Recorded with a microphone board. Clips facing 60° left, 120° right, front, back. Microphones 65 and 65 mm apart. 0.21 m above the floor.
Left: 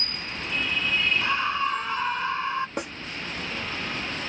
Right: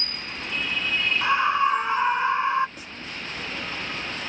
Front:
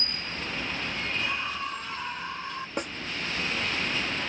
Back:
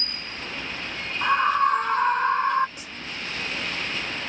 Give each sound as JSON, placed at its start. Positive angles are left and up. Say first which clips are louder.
{"t": 1.2, "sound": "a scream", "louder": "right 5 dB, back 12 dB", "azimuth_deg": 175}
{"t": 2.8, "sound": "a snare drum", "louder": "left 10 dB, front 8 dB", "azimuth_deg": 35}